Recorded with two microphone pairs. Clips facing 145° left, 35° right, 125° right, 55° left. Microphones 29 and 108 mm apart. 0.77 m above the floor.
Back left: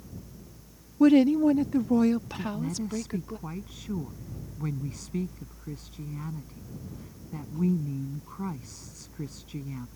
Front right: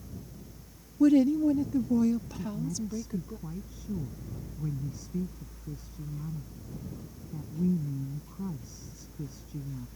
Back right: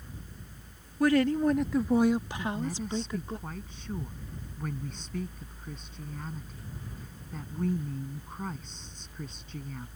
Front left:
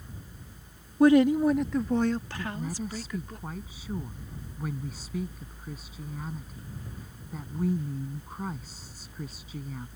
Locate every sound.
1.0 s a woman speaking: 110° left; by 3.4 s straight behind
2.4 s a woman speaking: 140° left